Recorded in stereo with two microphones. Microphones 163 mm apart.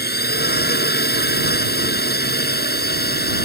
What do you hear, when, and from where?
0.0 s a drone: 75° left (ahead or behind)